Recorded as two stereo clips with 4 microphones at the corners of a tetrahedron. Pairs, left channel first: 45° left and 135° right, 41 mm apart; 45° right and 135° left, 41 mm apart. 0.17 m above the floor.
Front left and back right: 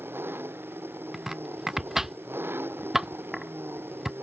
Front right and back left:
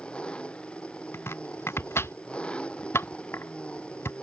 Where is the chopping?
55° right.